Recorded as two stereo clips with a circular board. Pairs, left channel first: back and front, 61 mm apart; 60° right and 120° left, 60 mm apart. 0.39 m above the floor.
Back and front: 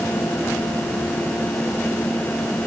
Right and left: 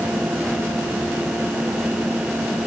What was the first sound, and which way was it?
Only background noise.